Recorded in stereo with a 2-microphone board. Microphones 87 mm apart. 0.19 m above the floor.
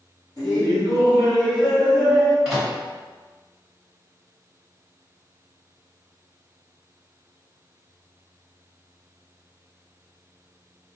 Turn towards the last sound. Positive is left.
turn(degrees=-10)  # may be behind; listen again after turning